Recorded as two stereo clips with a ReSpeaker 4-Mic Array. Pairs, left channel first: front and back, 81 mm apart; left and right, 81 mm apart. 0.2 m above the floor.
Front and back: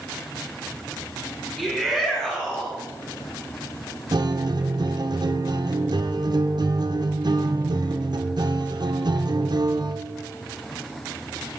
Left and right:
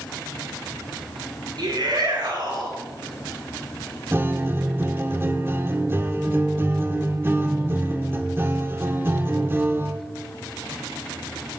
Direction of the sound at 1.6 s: 90° right.